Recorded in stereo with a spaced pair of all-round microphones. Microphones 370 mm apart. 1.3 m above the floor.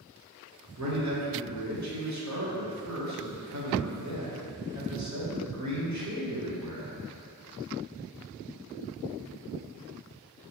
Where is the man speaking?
45° right (ahead or behind), 0.8 m.